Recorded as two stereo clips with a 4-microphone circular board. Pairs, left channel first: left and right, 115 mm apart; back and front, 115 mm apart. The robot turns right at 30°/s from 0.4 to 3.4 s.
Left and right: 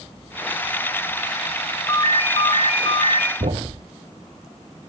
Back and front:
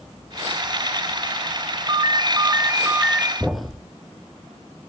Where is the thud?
85° right, 1.0 m.